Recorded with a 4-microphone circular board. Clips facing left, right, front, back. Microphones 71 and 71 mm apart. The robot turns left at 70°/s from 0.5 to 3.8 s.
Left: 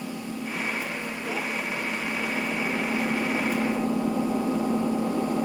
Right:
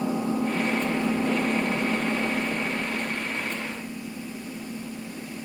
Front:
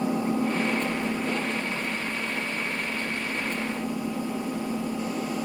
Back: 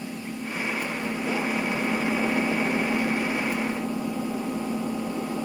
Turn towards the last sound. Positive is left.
turn(degrees=95)